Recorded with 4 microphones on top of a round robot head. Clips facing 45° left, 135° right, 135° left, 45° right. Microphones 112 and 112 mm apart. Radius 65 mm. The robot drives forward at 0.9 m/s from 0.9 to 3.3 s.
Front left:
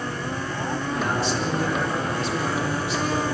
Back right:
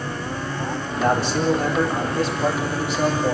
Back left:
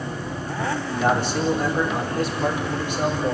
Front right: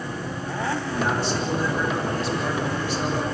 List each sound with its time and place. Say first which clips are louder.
0.9 s a man speaking: back right 6 dB, back left 5 dB; straight behind, 4.5 m